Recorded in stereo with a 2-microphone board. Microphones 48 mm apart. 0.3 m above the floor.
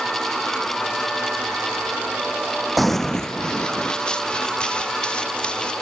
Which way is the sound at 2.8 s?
Centre (ahead or behind).